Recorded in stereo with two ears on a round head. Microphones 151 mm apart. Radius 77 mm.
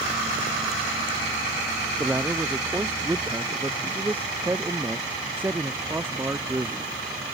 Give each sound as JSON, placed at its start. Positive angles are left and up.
{"t": 2.0, "sound": "a man speaking", "side_deg": -10}